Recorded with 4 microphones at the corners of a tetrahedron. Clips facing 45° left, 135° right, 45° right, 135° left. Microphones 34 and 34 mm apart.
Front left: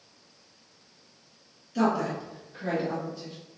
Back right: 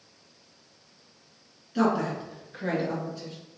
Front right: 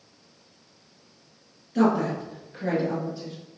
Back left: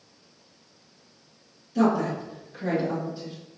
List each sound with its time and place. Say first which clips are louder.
1.8 s a woman speaking: back right 1 dB, front right 1 dB; 70° right, 1.6 m; by 3.3 s 145° right, 2.5 m